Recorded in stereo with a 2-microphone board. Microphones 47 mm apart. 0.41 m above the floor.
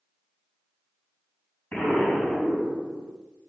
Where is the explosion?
25° left (ahead or behind), 4 m.